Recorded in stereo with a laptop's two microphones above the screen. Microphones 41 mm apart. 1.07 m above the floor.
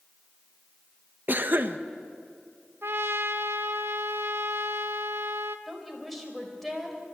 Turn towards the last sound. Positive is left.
turn(degrees=0)  # may be behind; listen again after turning